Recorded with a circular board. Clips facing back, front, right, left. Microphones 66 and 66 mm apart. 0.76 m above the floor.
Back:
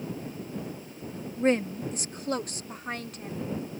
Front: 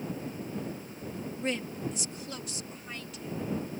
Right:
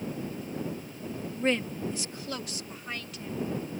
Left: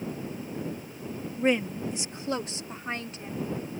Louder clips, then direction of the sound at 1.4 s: Back 10 dB, left 3 dB; 165° left.